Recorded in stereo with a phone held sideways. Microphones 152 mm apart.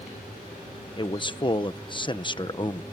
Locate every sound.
1.0 s a man speaking: 30° left (ahead or behind)